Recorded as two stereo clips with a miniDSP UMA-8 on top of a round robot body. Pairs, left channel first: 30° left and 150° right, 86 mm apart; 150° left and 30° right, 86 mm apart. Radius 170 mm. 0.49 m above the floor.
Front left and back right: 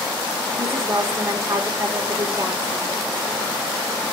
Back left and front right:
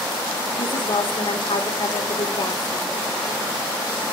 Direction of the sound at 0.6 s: 155° left.